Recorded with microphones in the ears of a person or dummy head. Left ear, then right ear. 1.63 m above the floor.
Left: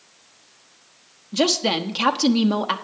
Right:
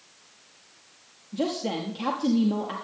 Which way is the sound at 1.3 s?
55° left (ahead or behind).